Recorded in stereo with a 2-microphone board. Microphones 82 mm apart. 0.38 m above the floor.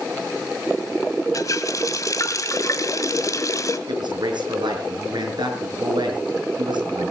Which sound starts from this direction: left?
A running tap, at 1.3 s.